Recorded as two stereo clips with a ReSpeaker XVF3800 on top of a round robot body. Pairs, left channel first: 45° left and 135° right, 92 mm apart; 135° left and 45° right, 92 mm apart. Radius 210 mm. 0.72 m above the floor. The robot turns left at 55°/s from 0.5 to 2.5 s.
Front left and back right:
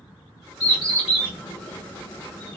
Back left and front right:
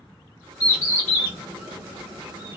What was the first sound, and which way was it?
A bird, 90° left.